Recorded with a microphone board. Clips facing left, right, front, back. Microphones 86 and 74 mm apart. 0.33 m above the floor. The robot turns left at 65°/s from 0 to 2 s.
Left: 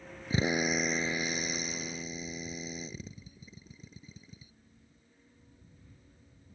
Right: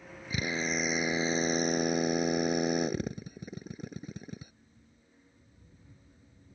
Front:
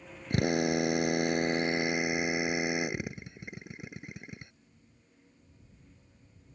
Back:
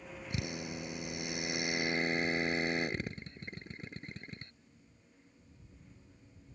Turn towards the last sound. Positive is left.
turn(degrees=-75)